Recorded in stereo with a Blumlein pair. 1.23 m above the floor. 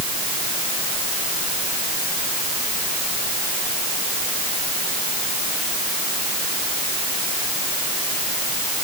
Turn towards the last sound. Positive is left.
No sound to turn to.